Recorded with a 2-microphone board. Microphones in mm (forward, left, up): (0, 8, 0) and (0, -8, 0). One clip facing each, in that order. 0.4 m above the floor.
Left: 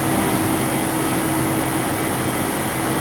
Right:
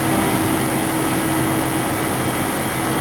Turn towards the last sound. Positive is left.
No sound to turn to.